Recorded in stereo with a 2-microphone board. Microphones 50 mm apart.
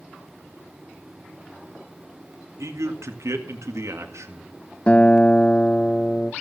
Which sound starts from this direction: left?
A guitar, at 4.9 s.